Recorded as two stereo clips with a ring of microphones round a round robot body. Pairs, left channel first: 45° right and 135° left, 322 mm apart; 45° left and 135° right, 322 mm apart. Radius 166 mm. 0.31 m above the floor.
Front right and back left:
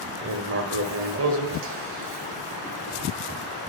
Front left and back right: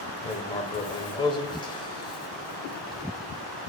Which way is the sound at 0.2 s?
115° left.